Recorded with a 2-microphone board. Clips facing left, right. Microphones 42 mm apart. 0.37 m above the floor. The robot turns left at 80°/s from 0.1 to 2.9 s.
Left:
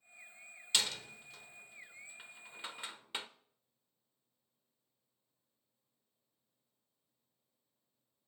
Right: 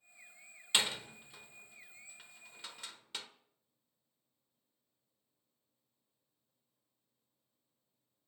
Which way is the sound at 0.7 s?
25° right (ahead or behind).